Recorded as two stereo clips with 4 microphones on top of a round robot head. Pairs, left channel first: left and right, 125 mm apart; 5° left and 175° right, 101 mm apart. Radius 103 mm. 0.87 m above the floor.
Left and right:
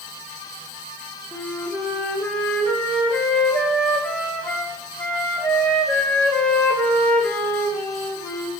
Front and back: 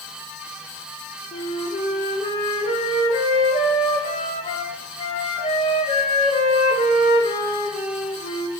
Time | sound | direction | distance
1.3 | a flute | 10° left | 1.9 m